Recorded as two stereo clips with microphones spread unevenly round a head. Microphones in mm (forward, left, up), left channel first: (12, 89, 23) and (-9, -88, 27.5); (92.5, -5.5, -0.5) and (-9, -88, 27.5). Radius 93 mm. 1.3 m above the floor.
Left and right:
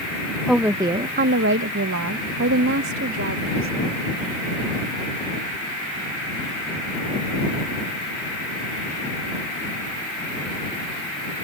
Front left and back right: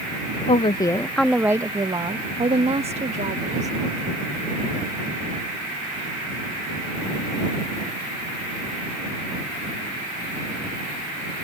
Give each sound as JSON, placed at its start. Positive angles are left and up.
{"t": 0.5, "sound": "a woman speaking", "azimuth_deg": -5}